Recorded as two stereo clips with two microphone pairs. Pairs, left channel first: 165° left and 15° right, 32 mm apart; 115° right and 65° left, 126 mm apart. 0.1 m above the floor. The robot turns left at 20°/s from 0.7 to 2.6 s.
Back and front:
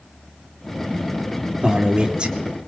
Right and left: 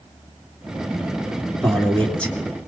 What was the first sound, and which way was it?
A man speaking, 35° right.